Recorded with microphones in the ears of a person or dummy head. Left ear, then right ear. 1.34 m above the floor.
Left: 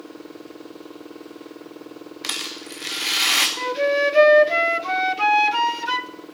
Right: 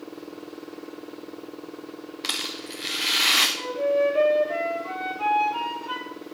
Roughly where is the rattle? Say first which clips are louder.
Left 1 dB; centre.